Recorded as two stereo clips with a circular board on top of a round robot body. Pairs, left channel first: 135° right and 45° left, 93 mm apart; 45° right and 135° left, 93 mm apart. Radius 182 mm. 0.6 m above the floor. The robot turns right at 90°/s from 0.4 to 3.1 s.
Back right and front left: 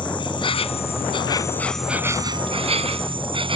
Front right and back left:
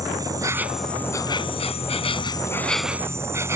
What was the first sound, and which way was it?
An insect, 170° right.